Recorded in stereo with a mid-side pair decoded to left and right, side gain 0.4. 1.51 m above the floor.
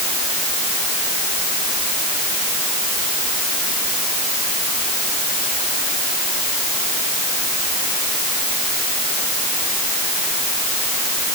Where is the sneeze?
No sneeze in this recording.